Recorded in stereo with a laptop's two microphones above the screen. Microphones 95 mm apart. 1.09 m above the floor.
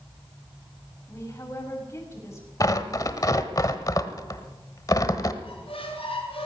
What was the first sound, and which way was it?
A woman speaking, 30° left (ahead or behind).